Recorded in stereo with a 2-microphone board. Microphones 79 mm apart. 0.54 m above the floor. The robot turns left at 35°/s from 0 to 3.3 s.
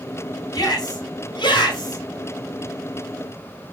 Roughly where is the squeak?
I don't hear a squeak.